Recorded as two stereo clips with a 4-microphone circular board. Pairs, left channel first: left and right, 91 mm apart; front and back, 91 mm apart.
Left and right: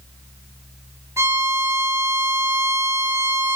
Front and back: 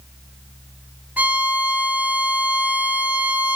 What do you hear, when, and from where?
1.2 s a violin: 120° right, 1.0 m